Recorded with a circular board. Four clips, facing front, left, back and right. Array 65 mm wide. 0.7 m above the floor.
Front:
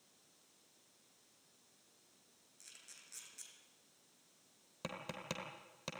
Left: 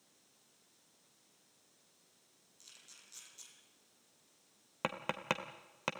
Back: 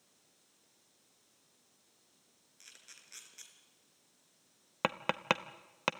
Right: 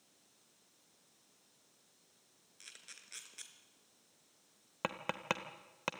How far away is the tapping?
About 1.0 m.